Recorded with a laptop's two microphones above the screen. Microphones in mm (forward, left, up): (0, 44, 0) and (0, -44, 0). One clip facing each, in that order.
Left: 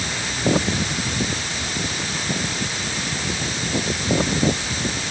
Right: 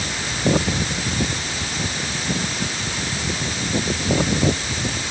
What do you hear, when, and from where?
Only background noise.